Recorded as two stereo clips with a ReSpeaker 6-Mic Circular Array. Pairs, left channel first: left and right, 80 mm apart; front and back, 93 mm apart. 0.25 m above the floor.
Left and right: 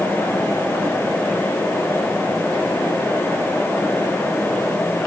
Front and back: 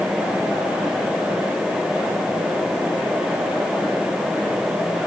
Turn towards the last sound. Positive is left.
No sound to turn to.